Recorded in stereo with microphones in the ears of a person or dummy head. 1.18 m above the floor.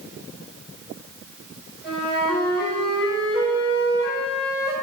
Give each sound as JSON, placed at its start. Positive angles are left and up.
{"t": 1.8, "sound": "a flute", "side_deg": 0, "distance_m": 6.5}